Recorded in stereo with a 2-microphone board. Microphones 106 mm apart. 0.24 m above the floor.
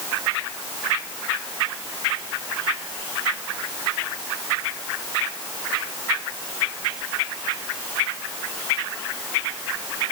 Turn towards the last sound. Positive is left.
No sound to turn to.